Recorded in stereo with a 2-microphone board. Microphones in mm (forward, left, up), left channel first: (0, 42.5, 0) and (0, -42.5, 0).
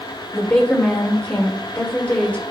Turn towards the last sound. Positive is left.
turn(degrees=15)  # may be behind; listen again after turning